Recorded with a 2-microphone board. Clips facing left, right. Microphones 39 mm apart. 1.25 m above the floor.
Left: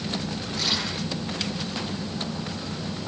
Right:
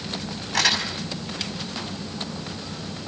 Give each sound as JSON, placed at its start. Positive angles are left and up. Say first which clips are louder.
{"t": 0.5, "sound": "crumpling", "louder": "right 6 dB", "side_deg": -90, "distance_m": 6.0}